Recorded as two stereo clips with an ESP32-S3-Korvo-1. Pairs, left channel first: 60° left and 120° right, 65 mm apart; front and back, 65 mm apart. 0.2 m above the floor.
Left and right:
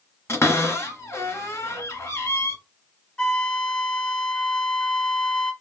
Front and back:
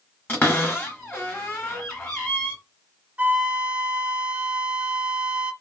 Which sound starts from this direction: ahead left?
A cupboard door, at 0.3 s.